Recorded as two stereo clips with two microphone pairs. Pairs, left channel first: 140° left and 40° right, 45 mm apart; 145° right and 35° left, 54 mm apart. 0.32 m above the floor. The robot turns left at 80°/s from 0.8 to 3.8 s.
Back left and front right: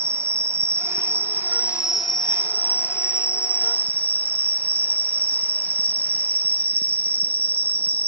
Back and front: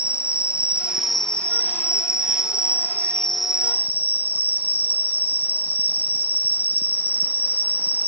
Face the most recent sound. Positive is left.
turn(degrees=90)